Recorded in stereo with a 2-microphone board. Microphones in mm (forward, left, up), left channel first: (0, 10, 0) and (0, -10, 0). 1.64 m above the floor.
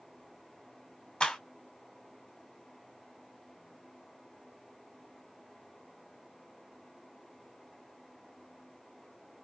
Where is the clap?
60° left (ahead or behind), 2.5 m.